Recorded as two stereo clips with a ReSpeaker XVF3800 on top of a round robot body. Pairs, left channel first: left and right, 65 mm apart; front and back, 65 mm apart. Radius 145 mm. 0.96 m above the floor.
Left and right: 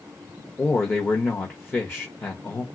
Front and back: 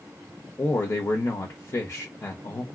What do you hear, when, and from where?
0.6 s a man speaking: 35° left, 0.9 m